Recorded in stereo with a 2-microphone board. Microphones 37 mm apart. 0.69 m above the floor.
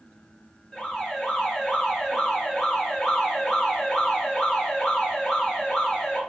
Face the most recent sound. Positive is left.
turn(degrees=5)  # may be behind; listen again after turning